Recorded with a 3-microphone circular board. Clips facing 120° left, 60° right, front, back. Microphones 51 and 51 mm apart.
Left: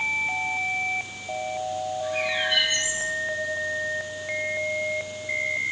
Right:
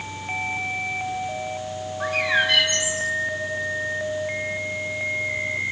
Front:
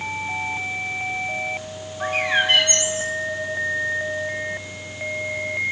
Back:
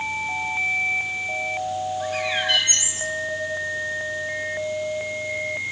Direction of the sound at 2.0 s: 55° right.